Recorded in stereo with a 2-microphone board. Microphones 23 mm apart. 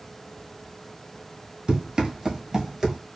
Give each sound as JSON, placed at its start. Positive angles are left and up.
{"t": 1.7, "sound": "running footsteps", "side_deg": -30, "distance_m": 1.3}